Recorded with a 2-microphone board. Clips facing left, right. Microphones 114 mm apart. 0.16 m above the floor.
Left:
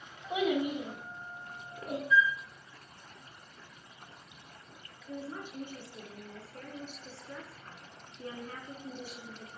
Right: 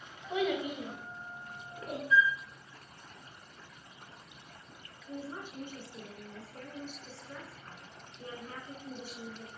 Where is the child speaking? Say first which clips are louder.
Left 2 dB; 15° left (ahead or behind), 0.6 m; by 2.0 s 5° right (ahead or behind), 0.9 m.